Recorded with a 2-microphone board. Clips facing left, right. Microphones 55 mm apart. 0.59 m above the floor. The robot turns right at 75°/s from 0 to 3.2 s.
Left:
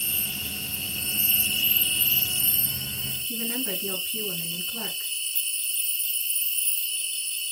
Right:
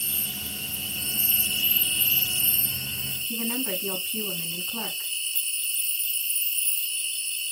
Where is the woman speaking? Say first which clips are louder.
Right 2 dB; 80° right, 5 m.